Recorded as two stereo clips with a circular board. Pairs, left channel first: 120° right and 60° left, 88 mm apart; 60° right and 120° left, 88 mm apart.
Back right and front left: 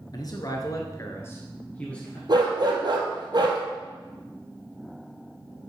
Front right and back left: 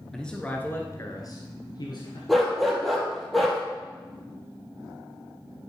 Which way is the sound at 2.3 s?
30° left.